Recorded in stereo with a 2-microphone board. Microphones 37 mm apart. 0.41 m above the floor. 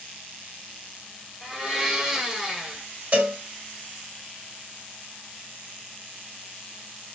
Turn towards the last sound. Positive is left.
turn(degrees=-50)  # may be behind; listen again after turning